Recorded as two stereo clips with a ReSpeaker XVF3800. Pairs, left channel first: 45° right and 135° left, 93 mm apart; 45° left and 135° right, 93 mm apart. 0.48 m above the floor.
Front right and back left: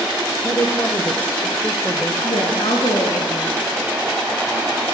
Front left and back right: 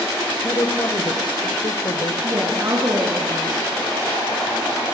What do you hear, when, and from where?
0.4 s a woman speaking: 10° left, 2.5 m; by 2.1 s 40° left, 2 m
2.2 s a woman speaking: 80° right, 6 m